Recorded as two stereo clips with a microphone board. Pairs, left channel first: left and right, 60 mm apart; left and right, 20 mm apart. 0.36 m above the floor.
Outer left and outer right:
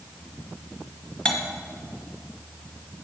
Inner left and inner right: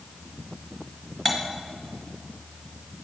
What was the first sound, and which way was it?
Cutlery clinking, 15° left (ahead or behind).